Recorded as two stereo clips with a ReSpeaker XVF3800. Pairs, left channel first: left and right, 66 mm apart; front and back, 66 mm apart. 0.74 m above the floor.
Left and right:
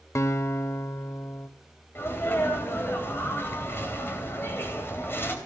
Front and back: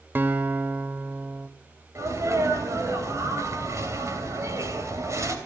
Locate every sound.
0.1 s a guitar: 125° left, 0.8 m
1.9 s a sneeze: 140° left, 3 m